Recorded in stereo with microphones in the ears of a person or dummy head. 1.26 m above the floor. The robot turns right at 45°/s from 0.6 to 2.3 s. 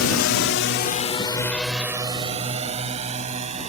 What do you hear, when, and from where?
0.0 s a drone: 80° left; by 3.7 s 35° right (ahead or behind)